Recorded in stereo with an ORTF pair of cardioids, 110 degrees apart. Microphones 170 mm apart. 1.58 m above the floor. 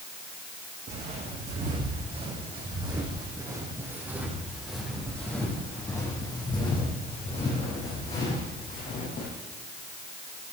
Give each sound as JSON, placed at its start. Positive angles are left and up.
{"t": 0.9, "sound": "footsteps", "azimuth_deg": -50, "distance_m": 6.0}